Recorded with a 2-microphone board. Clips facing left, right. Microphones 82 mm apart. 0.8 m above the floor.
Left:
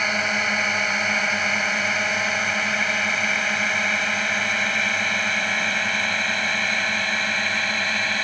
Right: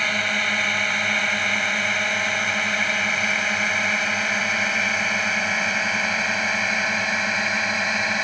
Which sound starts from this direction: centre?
A drone, at 0.0 s.